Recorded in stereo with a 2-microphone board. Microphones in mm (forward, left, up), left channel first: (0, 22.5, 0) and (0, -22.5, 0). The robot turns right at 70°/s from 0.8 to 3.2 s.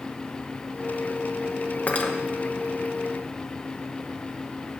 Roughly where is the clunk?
No clunk in this recording.